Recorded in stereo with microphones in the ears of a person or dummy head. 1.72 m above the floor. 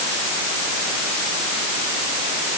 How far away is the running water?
I don't hear running water.